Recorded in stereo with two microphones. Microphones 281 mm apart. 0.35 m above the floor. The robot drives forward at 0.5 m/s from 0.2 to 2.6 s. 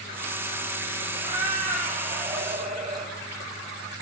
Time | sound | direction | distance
1.1 | a cat meowing | 20° right (ahead or behind) | 2 m